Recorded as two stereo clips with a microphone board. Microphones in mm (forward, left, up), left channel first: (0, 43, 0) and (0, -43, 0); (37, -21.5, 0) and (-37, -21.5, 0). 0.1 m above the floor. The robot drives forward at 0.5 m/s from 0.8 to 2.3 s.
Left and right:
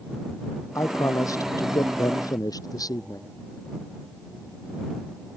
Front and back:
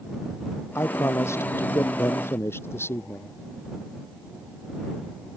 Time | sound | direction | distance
0.8 | a man speaking | 45° left | ?